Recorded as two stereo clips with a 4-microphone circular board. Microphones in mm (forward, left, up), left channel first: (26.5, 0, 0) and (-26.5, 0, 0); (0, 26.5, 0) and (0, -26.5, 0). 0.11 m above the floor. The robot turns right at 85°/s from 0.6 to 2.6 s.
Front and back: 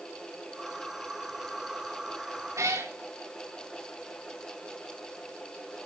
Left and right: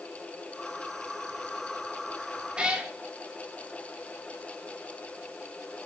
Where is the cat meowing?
165° right, 3.5 m; by 2.9 s 160° right, 3.5 m.